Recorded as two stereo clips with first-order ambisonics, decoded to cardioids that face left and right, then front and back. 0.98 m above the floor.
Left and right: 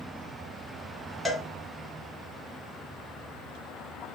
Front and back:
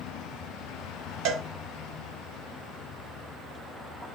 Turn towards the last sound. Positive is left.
turn(degrees=170)